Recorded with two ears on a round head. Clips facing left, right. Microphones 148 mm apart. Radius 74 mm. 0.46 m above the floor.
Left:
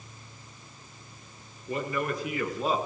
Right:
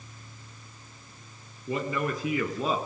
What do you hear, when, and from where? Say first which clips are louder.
1.7 s a man speaking: right 1 dB; 65° right (ahead or behind), 5.5 m; by 2.8 s 75° right (ahead or behind), 5.5 m